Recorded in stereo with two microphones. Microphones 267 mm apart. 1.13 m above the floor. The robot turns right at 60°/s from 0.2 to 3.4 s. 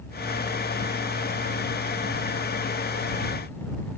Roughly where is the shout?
I don't hear a shout.